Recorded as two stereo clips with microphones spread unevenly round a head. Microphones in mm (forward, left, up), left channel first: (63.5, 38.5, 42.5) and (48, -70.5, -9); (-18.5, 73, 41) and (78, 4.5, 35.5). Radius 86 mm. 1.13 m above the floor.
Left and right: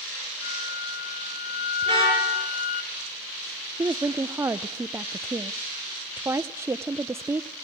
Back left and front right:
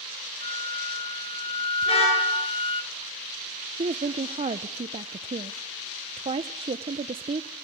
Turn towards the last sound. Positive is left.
turn(degrees=-60)